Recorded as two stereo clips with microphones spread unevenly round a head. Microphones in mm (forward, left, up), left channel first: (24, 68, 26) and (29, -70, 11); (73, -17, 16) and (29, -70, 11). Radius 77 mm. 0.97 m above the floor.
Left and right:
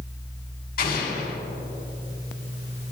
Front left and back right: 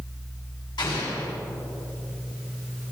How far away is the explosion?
About 2.5 m.